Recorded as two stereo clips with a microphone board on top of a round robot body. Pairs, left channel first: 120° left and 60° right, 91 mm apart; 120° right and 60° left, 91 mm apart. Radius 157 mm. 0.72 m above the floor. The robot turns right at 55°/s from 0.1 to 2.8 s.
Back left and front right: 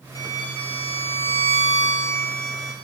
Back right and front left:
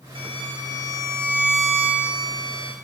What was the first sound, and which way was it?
A violin, 70° left.